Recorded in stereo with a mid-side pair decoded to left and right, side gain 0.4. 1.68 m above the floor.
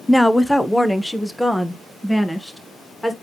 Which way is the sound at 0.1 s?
10° left.